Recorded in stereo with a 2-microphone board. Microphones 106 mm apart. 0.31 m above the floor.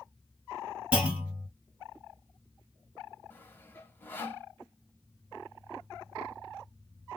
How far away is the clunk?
About 1.6 m.